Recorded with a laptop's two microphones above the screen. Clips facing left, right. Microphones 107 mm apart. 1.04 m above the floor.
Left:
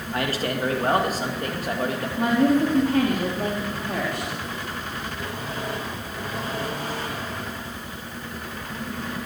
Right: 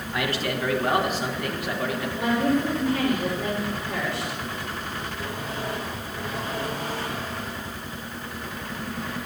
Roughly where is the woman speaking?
Left.